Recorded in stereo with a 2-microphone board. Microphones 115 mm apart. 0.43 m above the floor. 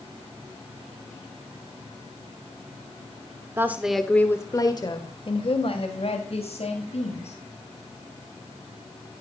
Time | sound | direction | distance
3.6 | a woman speaking | 20° right (ahead or behind) | 1.0 m